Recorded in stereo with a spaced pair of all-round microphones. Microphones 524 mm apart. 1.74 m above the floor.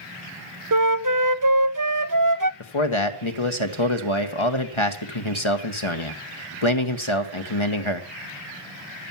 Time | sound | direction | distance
0.7 | a flute | 40° right (ahead or behind) | 0.6 m
2.6 | a man speaking | 65° left (ahead or behind) | 1.4 m